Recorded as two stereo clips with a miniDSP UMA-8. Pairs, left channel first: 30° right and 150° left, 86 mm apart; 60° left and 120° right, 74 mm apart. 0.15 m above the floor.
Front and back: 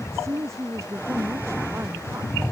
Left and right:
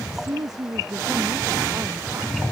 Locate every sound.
0.1 s a woman speaking: 155° right